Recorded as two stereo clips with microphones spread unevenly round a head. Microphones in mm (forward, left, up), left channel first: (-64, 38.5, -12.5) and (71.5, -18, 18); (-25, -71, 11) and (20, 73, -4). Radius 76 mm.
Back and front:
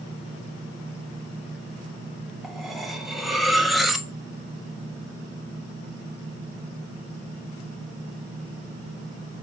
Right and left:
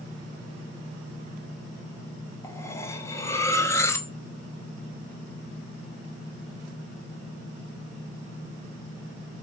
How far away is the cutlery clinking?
About 0.8 m.